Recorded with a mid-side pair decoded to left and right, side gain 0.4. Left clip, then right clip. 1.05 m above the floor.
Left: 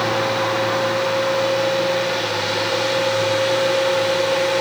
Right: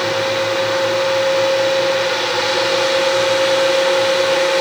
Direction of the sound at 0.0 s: 35° right.